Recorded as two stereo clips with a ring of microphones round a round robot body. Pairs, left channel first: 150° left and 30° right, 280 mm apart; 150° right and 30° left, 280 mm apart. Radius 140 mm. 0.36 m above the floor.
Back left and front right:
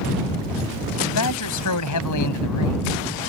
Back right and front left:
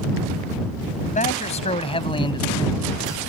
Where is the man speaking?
150° left; by 3.2 s 130° left.